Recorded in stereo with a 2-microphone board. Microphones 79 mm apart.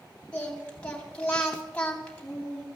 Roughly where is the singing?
Centre.